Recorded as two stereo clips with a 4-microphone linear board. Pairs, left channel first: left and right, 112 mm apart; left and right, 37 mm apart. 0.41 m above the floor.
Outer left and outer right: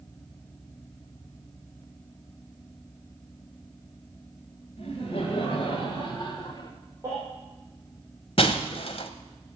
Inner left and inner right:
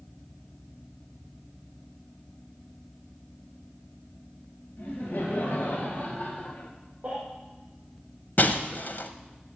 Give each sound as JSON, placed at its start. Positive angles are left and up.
{"t": 4.8, "sound": "laughter", "side_deg": 65, "distance_m": 2.0}
{"t": 7.0, "sound": "a baby crying", "side_deg": -25, "distance_m": 6.5}
{"t": 8.4, "sound": "breaking glass", "side_deg": 55, "distance_m": 1.0}